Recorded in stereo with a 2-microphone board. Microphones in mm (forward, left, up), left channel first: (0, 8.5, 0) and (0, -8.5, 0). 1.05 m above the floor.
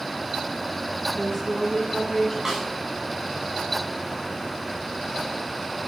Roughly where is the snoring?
No snoring in this recording.